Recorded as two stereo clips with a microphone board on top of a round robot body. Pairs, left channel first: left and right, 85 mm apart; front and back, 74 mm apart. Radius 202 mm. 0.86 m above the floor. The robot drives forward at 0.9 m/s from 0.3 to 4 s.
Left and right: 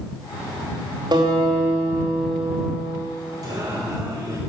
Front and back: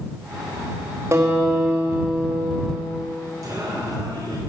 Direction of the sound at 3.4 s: 135° right.